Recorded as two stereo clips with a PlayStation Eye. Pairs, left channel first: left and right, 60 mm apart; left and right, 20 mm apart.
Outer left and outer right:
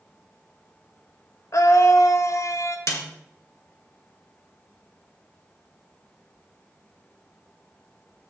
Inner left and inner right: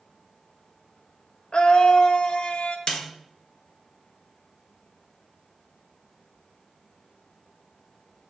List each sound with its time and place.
1.5 s a scream: 55° left (ahead or behind), 0.7 m
2.9 s a snare drum: 55° left (ahead or behind), 1.9 m